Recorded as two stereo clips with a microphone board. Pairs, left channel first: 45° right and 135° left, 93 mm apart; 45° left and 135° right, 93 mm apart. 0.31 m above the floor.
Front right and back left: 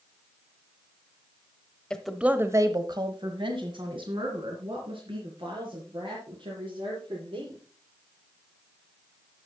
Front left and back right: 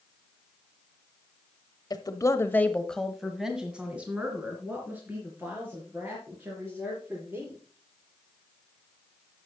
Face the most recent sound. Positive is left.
turn(degrees=160)